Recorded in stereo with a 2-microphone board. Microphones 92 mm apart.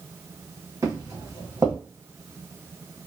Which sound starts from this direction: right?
Footsteps, at 0.8 s.